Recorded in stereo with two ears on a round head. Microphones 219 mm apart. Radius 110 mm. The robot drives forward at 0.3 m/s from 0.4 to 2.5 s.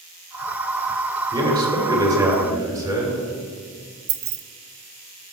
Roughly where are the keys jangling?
Right.